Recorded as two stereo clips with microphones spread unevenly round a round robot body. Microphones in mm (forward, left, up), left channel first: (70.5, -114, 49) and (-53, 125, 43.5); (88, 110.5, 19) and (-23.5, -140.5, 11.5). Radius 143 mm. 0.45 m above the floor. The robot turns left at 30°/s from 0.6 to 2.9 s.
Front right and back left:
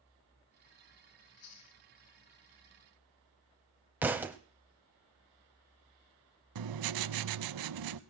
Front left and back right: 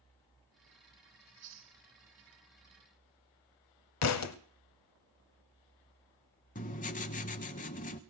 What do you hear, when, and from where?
1.2 s chewing: 60° right, 3.5 m; by 1.8 s 80° right, 3.5 m
4.0 s a thud: 35° left, 0.9 m
6.5 s writing: 130° left, 0.6 m